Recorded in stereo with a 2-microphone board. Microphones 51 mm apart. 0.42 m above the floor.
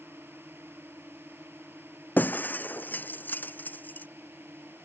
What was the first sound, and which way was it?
A drone, 50° right (ahead or behind).